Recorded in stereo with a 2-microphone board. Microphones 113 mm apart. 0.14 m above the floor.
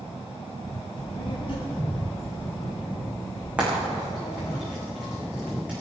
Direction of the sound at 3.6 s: 10° right (ahead or behind).